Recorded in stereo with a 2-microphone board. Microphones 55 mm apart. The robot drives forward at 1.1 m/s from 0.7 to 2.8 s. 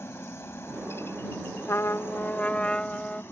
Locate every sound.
0.0 s a helicopter: 45° left (ahead or behind)
1.7 s a trumpet: 50° left (ahead or behind); by 3.2 s 20° left (ahead or behind)